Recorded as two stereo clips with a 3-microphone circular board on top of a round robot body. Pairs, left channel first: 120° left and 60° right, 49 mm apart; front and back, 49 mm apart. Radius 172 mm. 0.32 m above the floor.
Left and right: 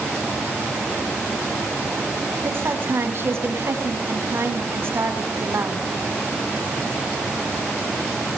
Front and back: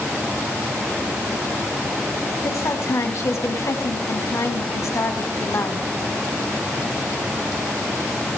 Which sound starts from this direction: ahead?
A woman speaking, at 2.4 s.